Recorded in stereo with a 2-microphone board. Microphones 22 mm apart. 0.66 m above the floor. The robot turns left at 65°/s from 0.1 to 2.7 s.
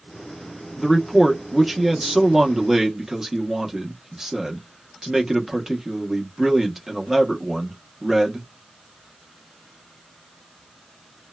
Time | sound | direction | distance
0.8 | a man speaking | 10° left (ahead or behind) | 0.6 m